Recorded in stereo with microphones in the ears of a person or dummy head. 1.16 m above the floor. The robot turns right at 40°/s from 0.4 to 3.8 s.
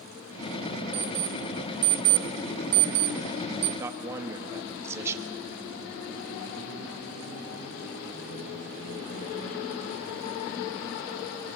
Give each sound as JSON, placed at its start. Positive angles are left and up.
{"t": 0.9, "sound": "an alarm clock", "side_deg": -25, "distance_m": 1.2}
{"t": 3.8, "sound": "a man speaking", "side_deg": -15, "distance_m": 1.7}